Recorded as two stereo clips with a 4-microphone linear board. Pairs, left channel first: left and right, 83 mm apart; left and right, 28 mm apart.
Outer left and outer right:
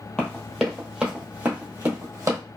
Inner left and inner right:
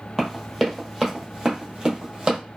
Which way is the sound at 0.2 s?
10° left (ahead or behind).